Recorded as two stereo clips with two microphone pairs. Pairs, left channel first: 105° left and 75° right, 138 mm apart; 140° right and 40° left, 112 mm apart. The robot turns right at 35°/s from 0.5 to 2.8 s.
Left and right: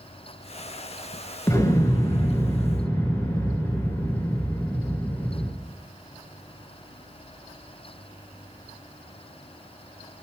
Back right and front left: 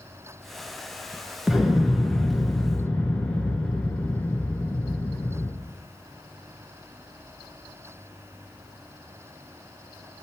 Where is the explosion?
115° left, 0.7 m; by 5.5 s 160° left, 0.7 m.